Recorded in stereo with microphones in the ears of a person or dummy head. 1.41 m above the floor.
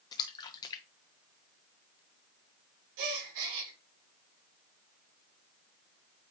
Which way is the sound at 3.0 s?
65° right (ahead or behind).